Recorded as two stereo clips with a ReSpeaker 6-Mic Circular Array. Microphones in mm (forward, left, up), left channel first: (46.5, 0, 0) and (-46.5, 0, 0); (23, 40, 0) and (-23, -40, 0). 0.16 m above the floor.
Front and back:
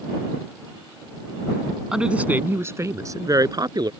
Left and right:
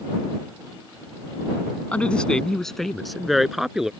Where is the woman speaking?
110° left; by 3.9 s 155° left.